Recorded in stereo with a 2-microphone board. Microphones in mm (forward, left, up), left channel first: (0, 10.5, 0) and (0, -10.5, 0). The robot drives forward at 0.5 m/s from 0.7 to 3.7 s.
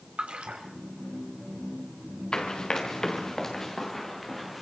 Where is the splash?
65° right (ahead or behind), 3.5 m.